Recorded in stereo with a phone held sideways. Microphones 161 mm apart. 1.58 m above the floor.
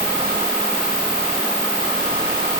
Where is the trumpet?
No trumpet in this recording.